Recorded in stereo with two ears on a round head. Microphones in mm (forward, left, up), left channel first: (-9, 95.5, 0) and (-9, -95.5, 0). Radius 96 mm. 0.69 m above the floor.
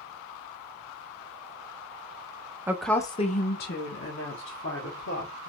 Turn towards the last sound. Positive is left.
turn(degrees=65)  # may be behind; listen again after turning